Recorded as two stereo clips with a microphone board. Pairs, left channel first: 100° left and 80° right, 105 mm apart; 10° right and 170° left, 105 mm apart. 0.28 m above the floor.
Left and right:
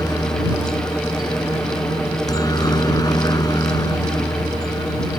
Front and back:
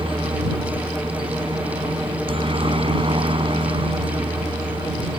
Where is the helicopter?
150° left.